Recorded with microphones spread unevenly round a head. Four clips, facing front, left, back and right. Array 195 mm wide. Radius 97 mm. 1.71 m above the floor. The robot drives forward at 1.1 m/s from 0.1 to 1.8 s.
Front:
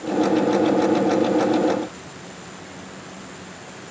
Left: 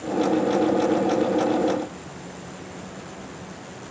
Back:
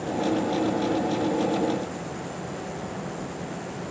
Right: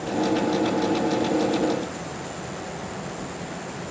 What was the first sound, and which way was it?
Only background noise.